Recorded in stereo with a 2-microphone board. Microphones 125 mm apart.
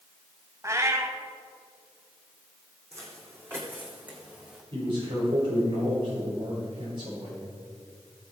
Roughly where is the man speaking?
Right.